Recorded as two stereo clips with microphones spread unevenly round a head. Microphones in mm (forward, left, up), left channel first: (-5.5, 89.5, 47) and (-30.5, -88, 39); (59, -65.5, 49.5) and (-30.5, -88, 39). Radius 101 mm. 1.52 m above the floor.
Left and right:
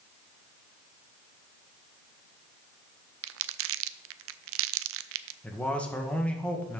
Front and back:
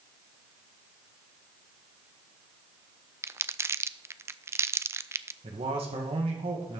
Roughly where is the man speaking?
Behind.